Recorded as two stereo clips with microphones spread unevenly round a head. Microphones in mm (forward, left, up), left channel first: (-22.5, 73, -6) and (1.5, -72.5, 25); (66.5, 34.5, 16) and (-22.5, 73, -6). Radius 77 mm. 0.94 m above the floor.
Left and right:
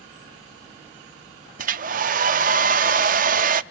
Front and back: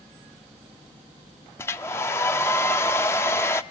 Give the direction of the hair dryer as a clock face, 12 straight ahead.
3 o'clock.